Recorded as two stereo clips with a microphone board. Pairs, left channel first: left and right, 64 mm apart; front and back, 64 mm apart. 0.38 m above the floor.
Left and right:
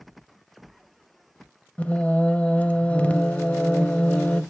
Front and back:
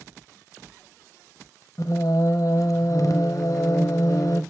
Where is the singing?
20° left, 0.6 m.